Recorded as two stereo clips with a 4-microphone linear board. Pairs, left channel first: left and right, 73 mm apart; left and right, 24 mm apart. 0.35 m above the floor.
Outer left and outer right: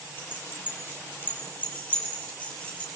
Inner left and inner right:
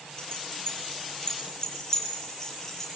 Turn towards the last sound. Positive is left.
turn(degrees=15)  # may be behind; listen again after turning